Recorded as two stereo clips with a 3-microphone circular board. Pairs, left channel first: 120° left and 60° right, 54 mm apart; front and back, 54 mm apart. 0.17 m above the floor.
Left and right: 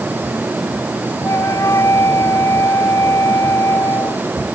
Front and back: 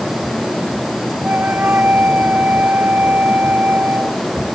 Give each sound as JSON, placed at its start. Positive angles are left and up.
{"t": 1.2, "sound": "a flute", "azimuth_deg": 125}